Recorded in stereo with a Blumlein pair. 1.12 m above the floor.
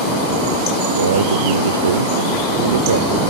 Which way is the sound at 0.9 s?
70° right.